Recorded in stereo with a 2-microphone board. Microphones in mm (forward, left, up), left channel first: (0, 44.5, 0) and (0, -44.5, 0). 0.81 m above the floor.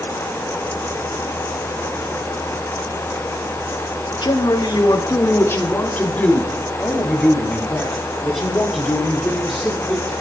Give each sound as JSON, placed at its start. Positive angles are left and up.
{"t": 4.2, "sound": "a man speaking", "side_deg": 60, "distance_m": 1.7}